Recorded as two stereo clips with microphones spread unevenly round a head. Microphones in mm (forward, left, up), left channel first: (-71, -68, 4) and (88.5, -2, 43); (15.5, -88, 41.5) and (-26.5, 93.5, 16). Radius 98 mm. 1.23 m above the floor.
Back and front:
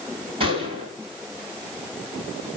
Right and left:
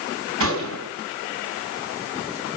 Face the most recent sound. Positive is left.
turn(degrees=85)